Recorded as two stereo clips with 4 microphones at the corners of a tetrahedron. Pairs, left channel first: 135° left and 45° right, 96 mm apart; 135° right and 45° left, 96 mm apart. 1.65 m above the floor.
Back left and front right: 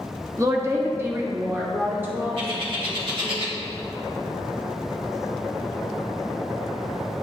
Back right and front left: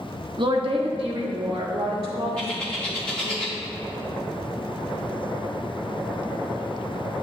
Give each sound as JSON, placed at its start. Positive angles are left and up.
{"t": 0.4, "sound": "a woman speaking", "azimuth_deg": 10, "distance_m": 0.7}
{"t": 2.4, "sound": "a bird", "azimuth_deg": -60, "distance_m": 1.6}